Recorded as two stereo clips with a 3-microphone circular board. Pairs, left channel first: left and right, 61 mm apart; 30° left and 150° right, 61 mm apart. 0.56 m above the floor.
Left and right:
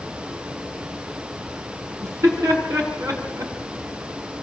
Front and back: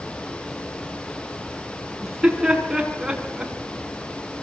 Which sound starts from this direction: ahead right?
Laughter, at 2.0 s.